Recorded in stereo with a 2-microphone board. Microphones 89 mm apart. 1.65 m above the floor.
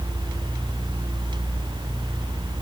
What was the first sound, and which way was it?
Only background noise.